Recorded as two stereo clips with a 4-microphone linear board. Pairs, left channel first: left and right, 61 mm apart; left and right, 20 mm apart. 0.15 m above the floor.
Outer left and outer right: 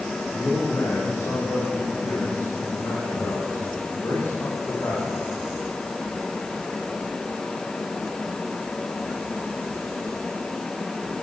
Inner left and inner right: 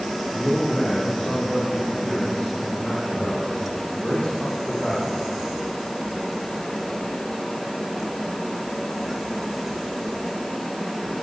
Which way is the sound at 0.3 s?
50° left (ahead or behind).